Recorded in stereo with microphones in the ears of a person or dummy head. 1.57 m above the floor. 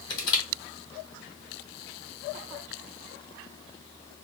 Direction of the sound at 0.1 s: 20° left (ahead or behind).